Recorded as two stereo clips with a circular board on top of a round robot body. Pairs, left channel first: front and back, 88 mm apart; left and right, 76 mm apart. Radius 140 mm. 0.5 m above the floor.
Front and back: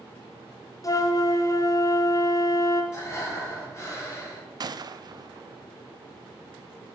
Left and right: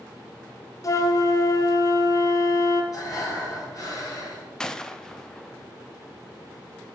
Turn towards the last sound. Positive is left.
turn(degrees=170)